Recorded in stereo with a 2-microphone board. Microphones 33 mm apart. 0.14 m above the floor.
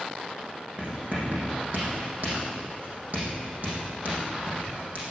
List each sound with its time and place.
0.8 s writing: 55° right (ahead or behind), 7 m